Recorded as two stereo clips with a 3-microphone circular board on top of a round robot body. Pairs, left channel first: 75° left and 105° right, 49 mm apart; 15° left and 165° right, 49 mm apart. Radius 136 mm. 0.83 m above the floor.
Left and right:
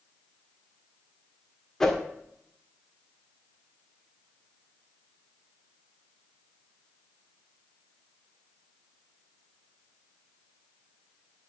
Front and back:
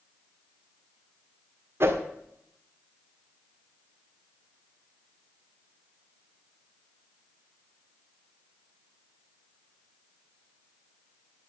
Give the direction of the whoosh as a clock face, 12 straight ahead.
7 o'clock.